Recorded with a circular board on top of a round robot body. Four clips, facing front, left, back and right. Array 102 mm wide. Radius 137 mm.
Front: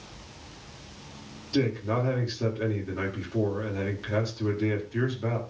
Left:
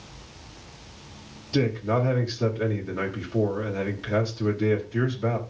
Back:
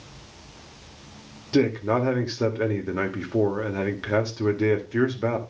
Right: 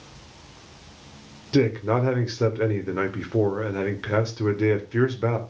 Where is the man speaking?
125° right, 2 m.